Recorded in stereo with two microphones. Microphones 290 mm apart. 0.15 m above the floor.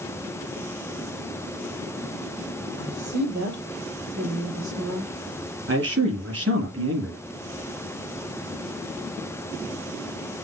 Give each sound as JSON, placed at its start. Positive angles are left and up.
{"t": 2.8, "sound": "a woman speaking", "side_deg": -70, "distance_m": 4.0}
{"t": 5.7, "sound": "a man speaking", "side_deg": -55, "distance_m": 4.0}